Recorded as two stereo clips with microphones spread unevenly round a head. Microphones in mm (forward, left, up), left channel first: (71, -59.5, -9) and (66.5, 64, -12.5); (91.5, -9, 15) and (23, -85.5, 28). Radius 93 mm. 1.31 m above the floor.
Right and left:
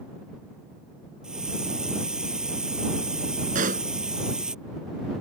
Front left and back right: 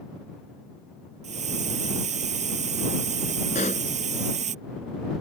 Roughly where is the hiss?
Behind.